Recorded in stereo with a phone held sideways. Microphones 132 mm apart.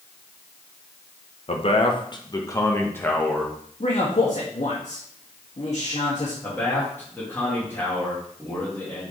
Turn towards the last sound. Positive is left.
turn(degrees=15)  # may be behind; listen again after turning